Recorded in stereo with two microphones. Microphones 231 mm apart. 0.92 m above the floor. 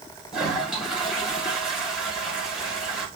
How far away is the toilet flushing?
About 2.5 m.